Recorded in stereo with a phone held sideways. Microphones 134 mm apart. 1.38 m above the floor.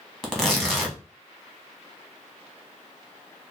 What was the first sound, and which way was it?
Tearing paper, 5° left (ahead or behind).